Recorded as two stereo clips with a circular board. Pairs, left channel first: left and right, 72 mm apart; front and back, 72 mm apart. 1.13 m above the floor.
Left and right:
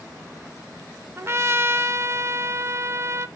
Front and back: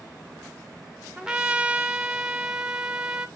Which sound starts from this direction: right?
A trumpet, at 1.2 s.